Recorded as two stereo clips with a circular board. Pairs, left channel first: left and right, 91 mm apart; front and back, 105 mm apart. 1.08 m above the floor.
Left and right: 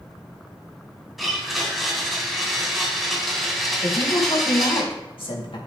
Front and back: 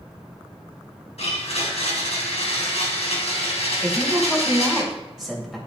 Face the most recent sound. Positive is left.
turn(degrees=95)